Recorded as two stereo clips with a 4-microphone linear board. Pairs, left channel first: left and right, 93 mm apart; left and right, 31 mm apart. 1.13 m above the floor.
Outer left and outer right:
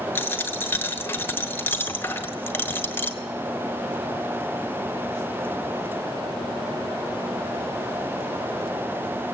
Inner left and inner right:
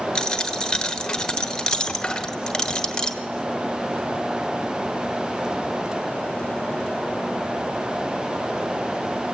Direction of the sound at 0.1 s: 20° left (ahead or behind).